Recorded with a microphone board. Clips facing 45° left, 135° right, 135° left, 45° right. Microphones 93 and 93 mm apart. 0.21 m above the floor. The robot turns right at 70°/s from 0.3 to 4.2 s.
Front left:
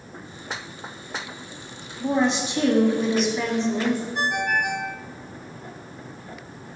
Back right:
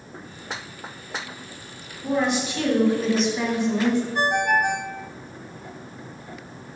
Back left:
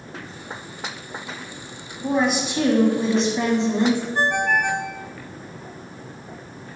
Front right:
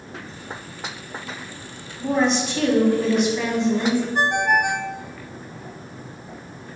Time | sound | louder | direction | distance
2.0 | a woman speaking | front left 1 dB, front right 1 dB | 45° left | 1.3 m
4.2 | a ringtone | back right 3 dB, front right 1 dB | 110° right | 0.6 m